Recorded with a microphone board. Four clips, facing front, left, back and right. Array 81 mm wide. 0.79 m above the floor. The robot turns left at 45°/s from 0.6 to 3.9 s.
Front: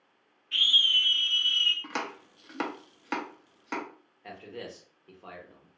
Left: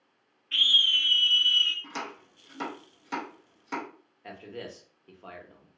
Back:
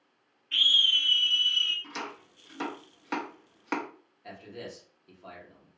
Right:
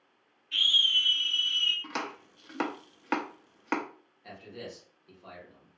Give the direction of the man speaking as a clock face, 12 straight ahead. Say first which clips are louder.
Left 3 dB, front 1 dB; 10 o'clock.